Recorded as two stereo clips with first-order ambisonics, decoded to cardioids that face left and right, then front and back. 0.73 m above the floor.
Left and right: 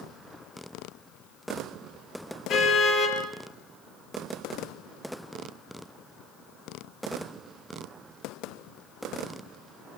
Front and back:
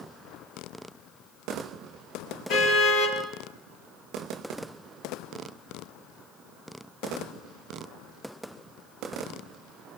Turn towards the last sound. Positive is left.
turn(degrees=40)